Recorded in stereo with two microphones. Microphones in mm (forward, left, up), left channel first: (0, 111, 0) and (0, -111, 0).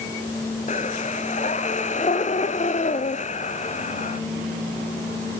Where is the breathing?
35° left (ahead or behind), 0.7 m.